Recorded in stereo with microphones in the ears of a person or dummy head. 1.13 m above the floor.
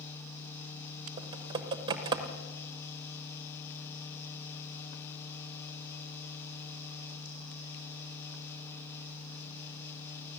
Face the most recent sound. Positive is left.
turn(degrees=-20)  # may be behind; listen again after turning